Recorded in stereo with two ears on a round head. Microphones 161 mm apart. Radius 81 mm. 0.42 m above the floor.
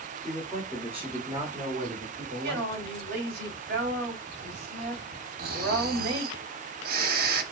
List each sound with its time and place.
0.2 s a man speaking: 5° left (ahead or behind), 1.7 m; by 3.0 s 50° right (ahead or behind), 2.0 m
2.4 s a woman speaking: 65° right (ahead or behind), 1.9 m
5.4 s snoring: 55° right (ahead or behind), 0.9 m